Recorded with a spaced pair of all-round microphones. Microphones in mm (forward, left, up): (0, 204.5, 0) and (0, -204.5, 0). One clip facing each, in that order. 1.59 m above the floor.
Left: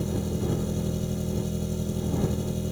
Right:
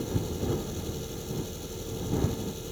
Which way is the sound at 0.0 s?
65° left (ahead or behind).